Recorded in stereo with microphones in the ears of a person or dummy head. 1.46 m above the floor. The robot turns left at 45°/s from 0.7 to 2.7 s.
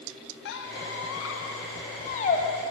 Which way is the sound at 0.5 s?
65° left (ahead or behind).